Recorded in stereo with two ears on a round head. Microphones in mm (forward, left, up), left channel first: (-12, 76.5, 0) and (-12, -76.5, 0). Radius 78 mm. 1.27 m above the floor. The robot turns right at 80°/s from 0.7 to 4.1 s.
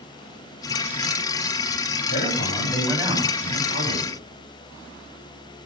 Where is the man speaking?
115° left, 9 m; by 4.2 s 85° right, 9 m.